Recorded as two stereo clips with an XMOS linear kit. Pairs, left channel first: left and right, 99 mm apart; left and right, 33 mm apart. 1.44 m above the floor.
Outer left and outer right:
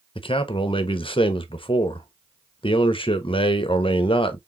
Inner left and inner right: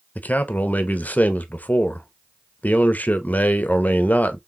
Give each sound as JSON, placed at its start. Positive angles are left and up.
{"t": 0.1, "sound": "a man speaking", "side_deg": 60, "distance_m": 0.9}